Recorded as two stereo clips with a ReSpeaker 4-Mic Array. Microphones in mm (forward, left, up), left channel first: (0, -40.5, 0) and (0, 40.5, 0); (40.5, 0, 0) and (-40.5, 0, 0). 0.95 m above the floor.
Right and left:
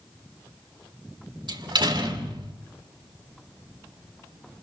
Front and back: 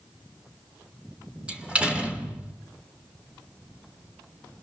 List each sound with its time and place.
1.5 s a door slam: 105° left, 2.5 m